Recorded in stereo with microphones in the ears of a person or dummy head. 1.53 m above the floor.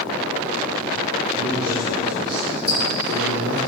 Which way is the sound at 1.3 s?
55° right (ahead or behind).